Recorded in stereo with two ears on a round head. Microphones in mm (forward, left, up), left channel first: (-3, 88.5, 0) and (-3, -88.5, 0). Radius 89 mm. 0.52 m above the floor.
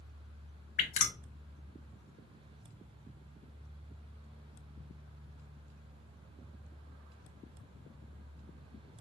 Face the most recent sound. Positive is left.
turn(degrees=40)  # may be behind; listen again after turning